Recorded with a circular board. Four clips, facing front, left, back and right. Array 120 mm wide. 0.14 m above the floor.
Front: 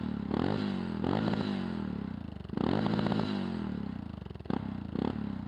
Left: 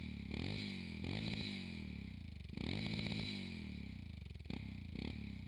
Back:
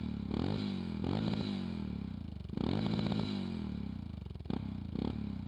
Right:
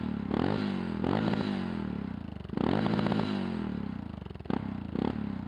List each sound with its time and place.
0.0 s a motorcycle: 60° right